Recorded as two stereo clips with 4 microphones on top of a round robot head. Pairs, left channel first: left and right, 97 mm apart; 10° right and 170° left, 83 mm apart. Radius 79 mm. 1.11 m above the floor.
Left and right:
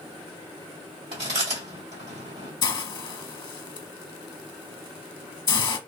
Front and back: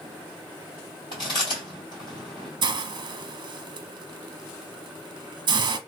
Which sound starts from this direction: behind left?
A hiss, at 2.6 s.